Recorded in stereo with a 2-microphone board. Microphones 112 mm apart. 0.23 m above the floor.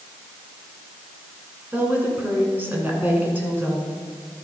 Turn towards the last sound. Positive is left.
turn(degrees=-20)  # may be behind; listen again after turning